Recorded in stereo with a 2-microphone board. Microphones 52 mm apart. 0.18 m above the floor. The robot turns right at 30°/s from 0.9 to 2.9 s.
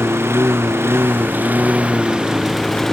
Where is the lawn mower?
60° right (ahead or behind); by 2.9 s 5° left (ahead or behind).